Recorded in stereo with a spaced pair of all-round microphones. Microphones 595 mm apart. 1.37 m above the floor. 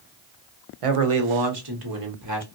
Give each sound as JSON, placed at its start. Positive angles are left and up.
{"t": 0.8, "sound": "a man speaking", "side_deg": -65, "distance_m": 0.7}